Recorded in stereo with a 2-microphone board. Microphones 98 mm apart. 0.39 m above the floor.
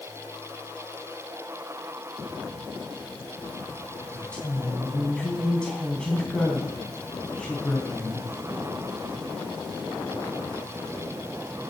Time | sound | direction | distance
4.1 | a woman speaking | 10° left (ahead or behind) | 3.5 m